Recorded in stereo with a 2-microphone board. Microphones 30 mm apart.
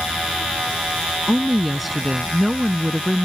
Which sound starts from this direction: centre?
A woman speaking, at 1.3 s.